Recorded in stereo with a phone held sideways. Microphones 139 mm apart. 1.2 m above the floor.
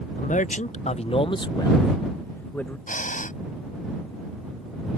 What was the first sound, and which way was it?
A man speaking, 70° left (ahead or behind).